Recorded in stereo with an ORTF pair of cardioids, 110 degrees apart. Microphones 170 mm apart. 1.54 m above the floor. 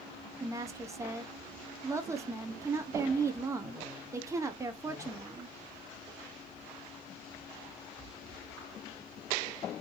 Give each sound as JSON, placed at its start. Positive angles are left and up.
{"t": 0.4, "sound": "a woman speaking", "azimuth_deg": -15, "distance_m": 0.7}